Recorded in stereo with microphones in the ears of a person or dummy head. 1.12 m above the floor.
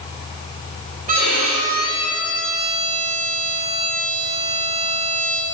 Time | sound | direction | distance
1.1 | a violin | 45° right (ahead or behind) | 2.5 m